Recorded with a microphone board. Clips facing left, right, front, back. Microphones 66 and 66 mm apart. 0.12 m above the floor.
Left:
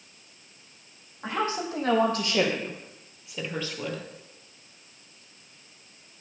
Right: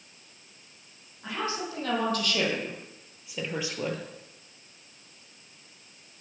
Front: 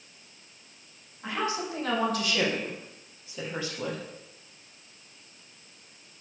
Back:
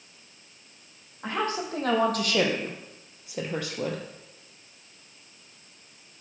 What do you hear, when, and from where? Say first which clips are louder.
1.2 s a woman speaking: left 4 dB, back 2 dB; 135° left, 4 m; by 4.0 s 150° right, 2 m